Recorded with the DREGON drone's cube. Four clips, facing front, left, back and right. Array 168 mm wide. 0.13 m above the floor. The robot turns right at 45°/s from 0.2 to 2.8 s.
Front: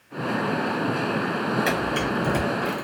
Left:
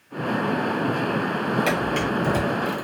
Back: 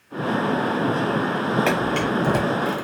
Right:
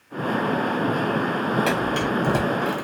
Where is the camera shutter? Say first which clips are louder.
Right 1 dB, back 3 dB; 175° right, 1.7 m; by 2.9 s 125° right, 1.7 m.